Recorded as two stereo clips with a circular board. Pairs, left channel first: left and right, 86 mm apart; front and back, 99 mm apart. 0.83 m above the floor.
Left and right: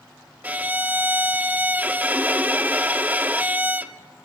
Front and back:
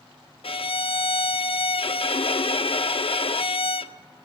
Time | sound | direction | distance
0.4 | a violin | 20° right | 0.6 m